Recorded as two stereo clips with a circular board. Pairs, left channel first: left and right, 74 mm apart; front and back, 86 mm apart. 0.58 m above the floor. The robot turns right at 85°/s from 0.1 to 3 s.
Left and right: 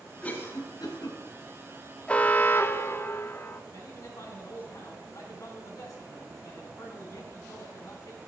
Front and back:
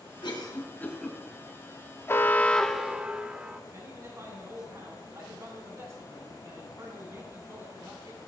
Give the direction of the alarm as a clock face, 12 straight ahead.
11 o'clock.